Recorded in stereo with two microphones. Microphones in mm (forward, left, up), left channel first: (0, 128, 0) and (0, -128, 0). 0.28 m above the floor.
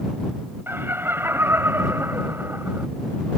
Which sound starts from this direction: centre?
Laughter, at 0.7 s.